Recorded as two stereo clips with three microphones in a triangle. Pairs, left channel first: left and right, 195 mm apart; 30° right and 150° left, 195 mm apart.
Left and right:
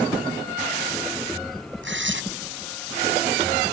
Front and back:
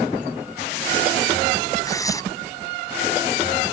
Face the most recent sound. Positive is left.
turn(degrees=-105)